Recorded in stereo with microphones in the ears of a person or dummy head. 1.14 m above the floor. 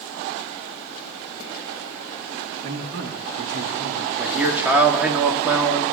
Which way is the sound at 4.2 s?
10° right (ahead or behind).